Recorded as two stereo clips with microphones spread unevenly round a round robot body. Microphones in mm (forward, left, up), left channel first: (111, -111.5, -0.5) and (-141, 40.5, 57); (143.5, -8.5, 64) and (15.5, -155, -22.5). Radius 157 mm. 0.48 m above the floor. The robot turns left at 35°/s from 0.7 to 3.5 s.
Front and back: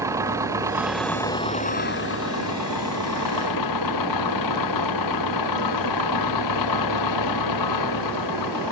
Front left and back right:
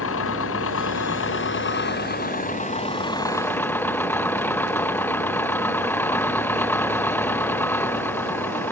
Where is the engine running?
70° left; by 8.7 s 30° right.